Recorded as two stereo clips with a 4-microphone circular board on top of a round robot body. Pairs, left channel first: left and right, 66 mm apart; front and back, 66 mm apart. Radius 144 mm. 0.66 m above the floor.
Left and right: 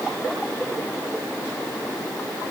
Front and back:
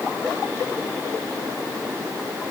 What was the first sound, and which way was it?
Only background noise.